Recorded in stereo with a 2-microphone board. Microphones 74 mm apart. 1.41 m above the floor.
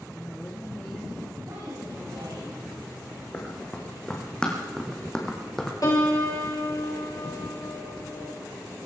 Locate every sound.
0.1 s a woman speaking: 30° left (ahead or behind), 2.5 m
1.4 s a woman speaking: 85° right, 8.5 m
3.3 s running footsteps: 15° left (ahead or behind), 4 m; by 5.7 s 5° left (ahead or behind), 2.5 m
5.8 s a piano: 50° left (ahead or behind), 2.5 m